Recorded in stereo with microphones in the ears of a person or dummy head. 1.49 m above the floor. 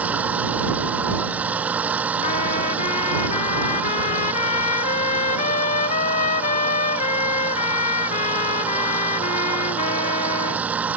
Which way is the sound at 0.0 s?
5° right (ahead or behind).